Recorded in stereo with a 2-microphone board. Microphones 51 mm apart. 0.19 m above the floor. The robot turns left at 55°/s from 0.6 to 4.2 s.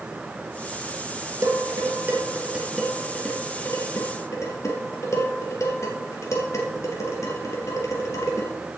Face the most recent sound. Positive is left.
turn(degrees=70)  # may be behind; listen again after turning